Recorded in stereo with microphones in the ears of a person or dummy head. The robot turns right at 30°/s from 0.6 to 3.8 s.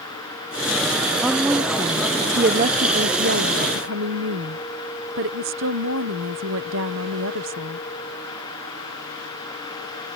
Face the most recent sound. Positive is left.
turn(degrees=-100)